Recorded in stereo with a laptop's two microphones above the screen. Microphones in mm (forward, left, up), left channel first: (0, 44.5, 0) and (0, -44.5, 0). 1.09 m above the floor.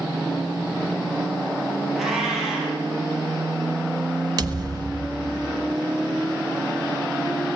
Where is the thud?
50° right (ahead or behind), 1.1 m.